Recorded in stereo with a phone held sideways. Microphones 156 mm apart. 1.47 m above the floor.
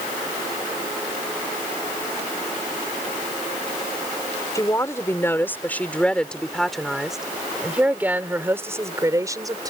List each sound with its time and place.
4.5 s a woman speaking: 20° left (ahead or behind); by 9.7 s 25° right (ahead or behind)